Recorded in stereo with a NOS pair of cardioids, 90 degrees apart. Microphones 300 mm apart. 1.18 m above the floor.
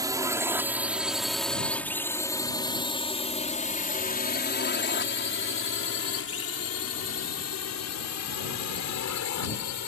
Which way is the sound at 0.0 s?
10° right.